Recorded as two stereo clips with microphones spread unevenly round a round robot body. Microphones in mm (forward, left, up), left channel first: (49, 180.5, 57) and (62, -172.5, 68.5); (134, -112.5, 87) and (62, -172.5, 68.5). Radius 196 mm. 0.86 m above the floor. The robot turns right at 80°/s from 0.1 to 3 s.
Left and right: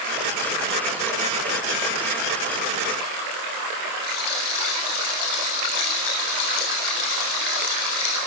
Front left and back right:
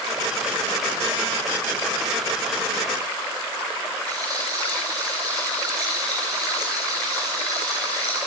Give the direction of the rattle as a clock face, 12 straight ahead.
9 o'clock.